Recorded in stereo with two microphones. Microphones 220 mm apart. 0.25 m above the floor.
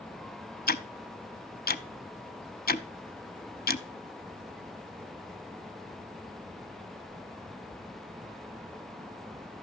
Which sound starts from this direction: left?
Ticking, at 0.7 s.